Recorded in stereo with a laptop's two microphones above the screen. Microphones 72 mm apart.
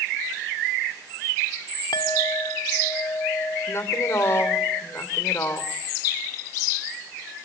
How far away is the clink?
About 1.5 m.